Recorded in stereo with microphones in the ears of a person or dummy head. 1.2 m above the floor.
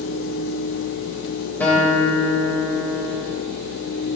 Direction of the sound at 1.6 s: 5° left (ahead or behind).